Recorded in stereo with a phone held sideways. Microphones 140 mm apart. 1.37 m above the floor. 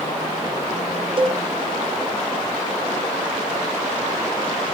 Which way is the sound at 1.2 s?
40° right (ahead or behind).